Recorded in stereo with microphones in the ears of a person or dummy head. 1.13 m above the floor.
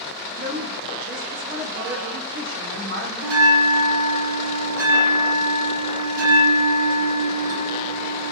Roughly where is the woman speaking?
Right.